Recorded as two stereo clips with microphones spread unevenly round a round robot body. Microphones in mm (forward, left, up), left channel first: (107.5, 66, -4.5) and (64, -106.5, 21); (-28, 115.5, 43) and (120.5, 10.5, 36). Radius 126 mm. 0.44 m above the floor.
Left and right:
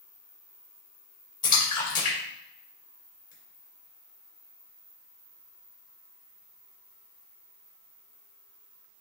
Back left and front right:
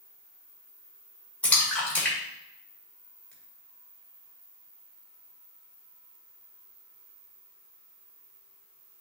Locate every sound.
1.4 s a splash: 60° left, 2 m